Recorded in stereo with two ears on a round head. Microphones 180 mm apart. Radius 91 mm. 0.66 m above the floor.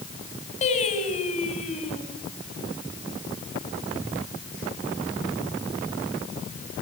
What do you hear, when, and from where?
0.6 s singing: 35° left (ahead or behind), 4.5 m